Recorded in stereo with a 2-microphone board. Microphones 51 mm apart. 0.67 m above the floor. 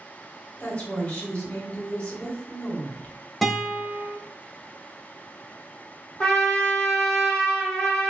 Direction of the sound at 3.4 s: Centre (ahead or behind).